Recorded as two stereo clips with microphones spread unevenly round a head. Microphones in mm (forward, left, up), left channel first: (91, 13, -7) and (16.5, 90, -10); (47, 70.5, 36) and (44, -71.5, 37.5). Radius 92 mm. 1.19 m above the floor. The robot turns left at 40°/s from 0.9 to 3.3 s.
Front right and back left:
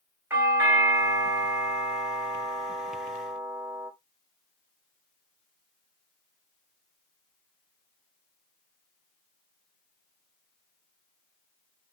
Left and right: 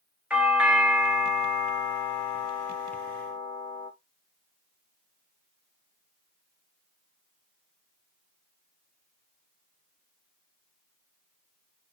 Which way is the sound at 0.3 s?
170° right.